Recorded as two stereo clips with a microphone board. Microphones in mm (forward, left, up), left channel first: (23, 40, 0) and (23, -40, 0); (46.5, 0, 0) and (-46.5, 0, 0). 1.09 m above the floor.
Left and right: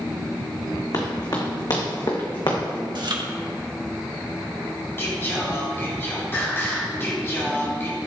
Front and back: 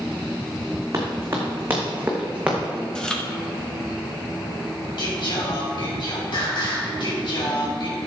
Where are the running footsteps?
120° left, 3 m; by 2.9 s 95° left, 3 m.